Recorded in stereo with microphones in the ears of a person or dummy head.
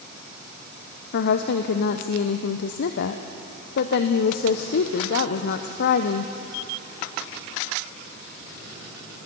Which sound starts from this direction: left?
A woman speaking, at 1.1 s.